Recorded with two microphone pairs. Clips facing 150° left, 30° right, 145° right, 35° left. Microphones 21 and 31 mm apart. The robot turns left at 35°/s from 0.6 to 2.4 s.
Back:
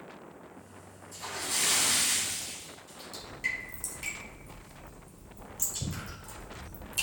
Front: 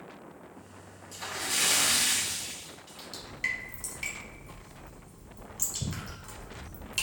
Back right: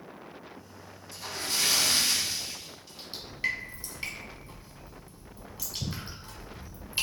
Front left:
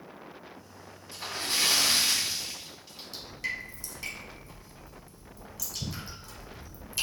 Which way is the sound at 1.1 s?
Straight ahead.